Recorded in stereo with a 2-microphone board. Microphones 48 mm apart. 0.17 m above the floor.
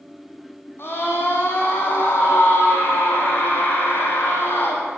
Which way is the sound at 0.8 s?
50° left (ahead or behind).